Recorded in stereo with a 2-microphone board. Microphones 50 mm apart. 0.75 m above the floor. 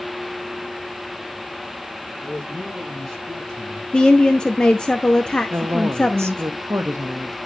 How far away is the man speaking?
About 8 m.